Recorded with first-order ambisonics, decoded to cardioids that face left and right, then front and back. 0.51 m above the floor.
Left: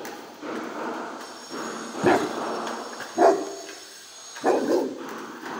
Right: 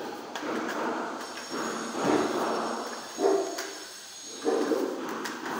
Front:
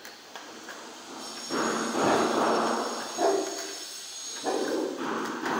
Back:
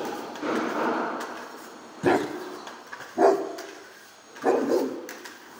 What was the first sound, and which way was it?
A dog barking, 110° left.